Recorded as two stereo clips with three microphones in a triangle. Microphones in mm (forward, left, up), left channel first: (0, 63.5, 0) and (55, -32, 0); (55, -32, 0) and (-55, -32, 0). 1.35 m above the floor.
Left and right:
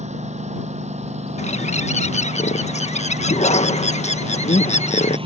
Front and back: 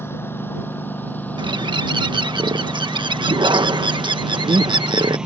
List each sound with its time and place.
0.0 s a lawn mower: 70° right; by 5.3 s 100° right
1.4 s a bird: 135° left